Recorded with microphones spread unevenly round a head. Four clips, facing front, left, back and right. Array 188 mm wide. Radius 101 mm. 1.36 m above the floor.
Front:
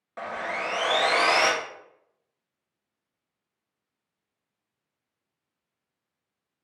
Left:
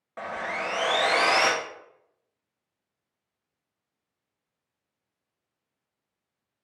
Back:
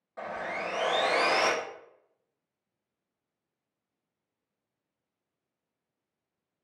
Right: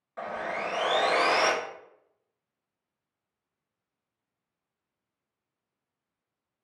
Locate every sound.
0.2 s sawing: 80° left, 0.6 m